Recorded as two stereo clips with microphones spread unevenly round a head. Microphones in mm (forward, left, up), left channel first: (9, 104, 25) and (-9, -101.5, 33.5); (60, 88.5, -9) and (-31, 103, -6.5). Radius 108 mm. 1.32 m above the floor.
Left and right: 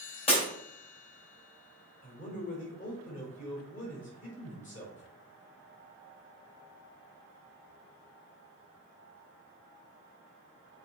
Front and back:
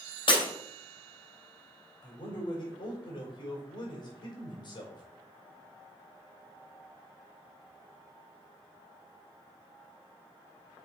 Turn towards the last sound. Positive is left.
turn(degrees=30)